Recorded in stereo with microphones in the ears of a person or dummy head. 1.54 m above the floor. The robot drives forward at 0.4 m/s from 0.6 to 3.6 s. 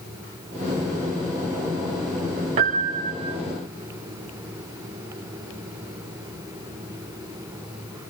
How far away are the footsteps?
I don't hear footsteps.